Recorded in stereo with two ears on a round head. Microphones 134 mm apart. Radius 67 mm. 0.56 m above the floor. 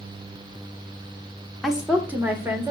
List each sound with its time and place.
1.6 s a woman speaking: centre (ahead or behind), 1.2 m; by 2.7 s 20° right (ahead or behind), 1.8 m